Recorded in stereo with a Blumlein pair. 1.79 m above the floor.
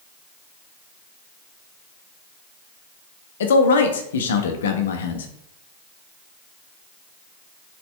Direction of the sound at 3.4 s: 60° left.